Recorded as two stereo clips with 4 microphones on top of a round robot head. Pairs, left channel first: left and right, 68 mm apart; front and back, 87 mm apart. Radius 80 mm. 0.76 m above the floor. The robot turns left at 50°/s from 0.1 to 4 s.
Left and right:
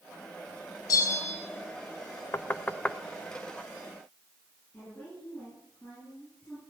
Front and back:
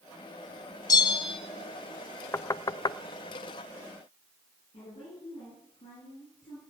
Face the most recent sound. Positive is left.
turn(degrees=20)